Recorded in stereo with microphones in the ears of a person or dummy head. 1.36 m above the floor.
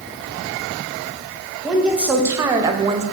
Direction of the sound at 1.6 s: 5° right (ahead or behind).